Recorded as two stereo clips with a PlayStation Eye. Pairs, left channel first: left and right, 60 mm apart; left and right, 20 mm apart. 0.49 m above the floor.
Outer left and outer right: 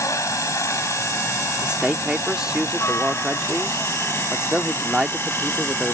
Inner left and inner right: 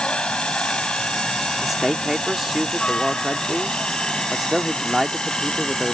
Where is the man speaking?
15° right (ahead or behind).